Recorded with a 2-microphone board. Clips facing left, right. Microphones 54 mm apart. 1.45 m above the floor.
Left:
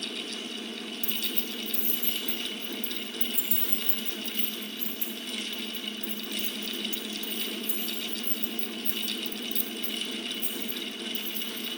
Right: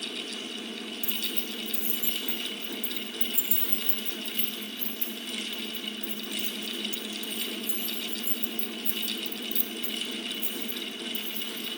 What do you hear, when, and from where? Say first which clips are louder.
1.0 s keys jangling: left 1 dB; 25° right (ahead or behind), 4.5 m; by 11.7 s 65° left (ahead or behind), 6 m